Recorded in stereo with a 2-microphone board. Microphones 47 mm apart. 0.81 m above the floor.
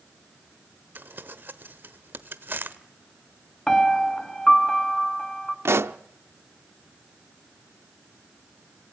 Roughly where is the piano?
Centre.